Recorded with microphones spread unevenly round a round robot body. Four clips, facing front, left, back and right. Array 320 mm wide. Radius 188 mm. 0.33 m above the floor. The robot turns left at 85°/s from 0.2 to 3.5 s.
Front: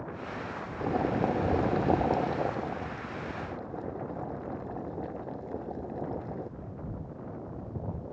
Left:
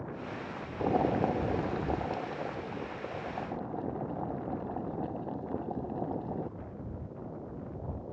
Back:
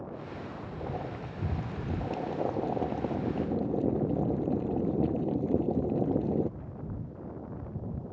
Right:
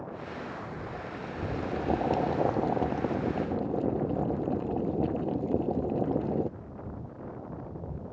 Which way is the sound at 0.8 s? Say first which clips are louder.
Left 10 dB, front 11 dB; 70° left.